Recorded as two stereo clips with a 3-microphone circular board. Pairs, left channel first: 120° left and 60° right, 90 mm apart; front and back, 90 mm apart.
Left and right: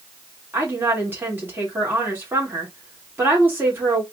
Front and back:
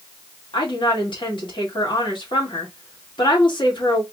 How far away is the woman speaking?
About 2.5 m.